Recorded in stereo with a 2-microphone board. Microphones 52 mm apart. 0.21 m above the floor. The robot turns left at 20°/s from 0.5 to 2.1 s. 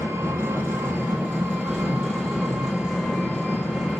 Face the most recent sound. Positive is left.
turn(degrees=-165)